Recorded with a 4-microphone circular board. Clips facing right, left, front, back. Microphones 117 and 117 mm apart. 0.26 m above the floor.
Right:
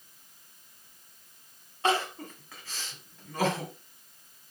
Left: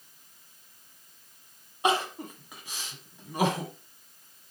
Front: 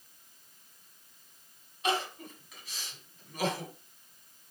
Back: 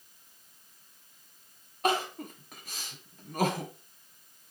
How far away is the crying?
About 1.9 m.